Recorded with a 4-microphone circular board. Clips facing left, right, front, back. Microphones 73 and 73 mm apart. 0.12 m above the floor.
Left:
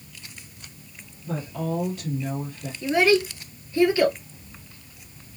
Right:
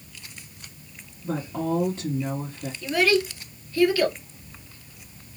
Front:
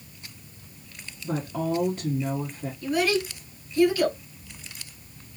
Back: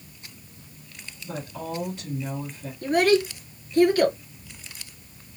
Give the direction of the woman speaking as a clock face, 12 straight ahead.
1 o'clock.